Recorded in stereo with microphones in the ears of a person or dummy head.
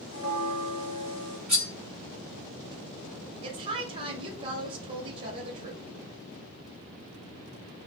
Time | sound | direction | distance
0.1 | a bell | 50° left (ahead or behind) | 1.7 m
1.5 | cutlery clinking | 5° right (ahead or behind) | 1.1 m
3.4 | a woman speaking | 30° right (ahead or behind) | 0.7 m